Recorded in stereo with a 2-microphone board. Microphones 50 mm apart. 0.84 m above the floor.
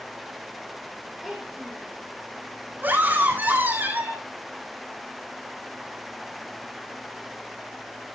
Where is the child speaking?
Centre (ahead or behind), 6 m.